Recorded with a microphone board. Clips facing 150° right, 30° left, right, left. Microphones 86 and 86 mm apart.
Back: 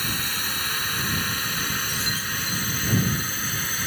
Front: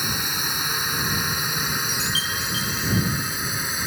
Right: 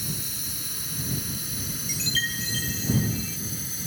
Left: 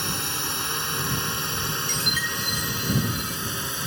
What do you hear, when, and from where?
0.0 s a drone: 105° left
1.9 s a chime: 10° left